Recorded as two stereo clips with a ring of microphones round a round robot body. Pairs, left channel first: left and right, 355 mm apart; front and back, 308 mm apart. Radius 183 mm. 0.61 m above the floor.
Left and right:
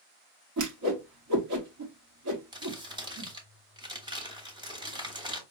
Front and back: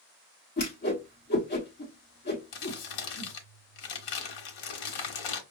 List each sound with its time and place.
0.6 s a whoosh: 55° right, 1.2 m
2.5 s crumpling: 10° right, 1.0 m